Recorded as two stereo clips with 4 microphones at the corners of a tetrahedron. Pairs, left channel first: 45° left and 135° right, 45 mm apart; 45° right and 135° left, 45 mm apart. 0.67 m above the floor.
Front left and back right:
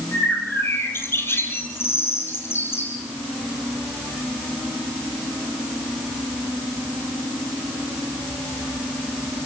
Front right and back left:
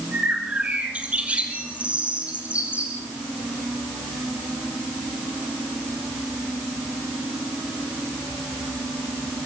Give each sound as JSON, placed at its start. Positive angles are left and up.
{"t": 0.1, "sound": "a bird", "azimuth_deg": 75, "distance_m": 3.5}